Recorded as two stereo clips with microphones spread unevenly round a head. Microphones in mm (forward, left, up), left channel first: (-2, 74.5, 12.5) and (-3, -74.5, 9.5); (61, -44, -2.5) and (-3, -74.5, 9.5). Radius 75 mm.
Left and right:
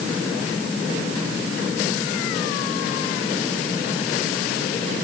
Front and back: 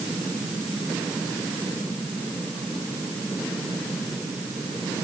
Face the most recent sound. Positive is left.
No sound to turn to.